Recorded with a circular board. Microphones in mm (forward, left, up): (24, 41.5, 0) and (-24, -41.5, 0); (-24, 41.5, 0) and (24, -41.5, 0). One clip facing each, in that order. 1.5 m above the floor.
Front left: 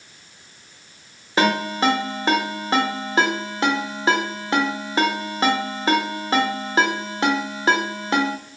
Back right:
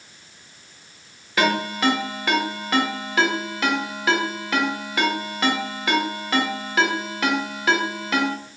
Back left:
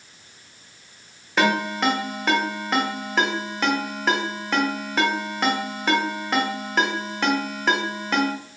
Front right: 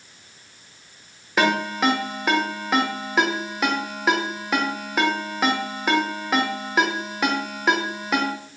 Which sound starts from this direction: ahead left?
A ringtone, at 1.4 s.